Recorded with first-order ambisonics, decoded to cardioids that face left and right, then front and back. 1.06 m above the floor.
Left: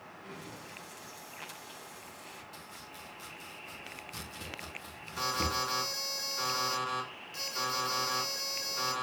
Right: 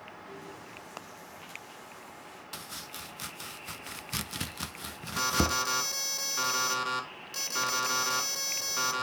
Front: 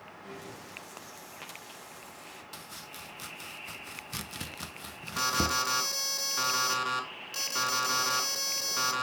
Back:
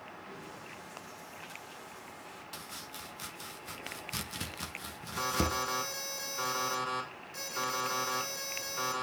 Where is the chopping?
90° right, 0.8 m.